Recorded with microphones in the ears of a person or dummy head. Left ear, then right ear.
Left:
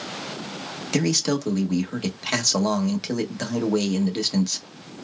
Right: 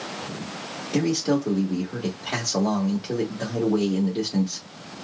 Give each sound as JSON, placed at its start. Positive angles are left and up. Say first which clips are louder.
{"t": 0.9, "sound": "a man speaking", "louder": "even", "side_deg": 70, "distance_m": 1.2}